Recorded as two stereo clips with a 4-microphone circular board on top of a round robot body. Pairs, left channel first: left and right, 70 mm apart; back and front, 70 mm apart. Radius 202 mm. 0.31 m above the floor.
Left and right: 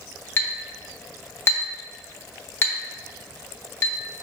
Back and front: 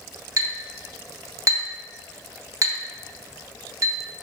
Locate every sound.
0.4 s a clink: 35° left, 1.2 m